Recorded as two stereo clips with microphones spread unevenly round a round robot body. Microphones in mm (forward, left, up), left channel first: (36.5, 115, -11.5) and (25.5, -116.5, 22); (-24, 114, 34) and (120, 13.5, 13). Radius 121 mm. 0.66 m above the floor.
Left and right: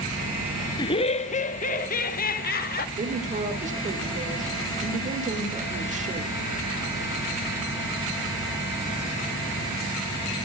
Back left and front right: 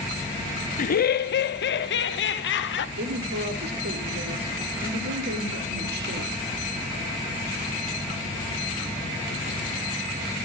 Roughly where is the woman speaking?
Ahead right.